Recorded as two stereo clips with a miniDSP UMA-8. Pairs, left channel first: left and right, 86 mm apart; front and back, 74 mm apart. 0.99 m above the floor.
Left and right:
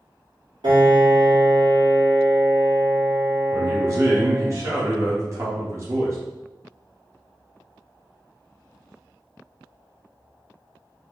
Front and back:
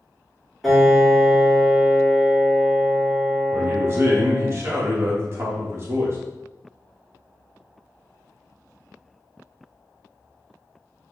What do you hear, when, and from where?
0.6 s a piano: 90° right, 2 m
3.5 s a man speaking: 135° right, 1.7 m